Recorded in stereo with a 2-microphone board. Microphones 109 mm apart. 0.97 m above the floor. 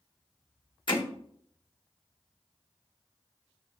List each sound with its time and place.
0.9 s hammering: 45° left (ahead or behind), 1.3 m